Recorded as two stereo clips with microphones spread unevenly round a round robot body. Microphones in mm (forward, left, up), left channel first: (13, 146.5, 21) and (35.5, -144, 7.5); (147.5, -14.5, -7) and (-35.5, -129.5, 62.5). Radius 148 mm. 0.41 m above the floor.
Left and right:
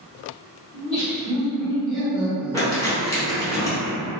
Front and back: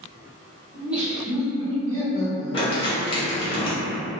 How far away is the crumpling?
About 1.0 m.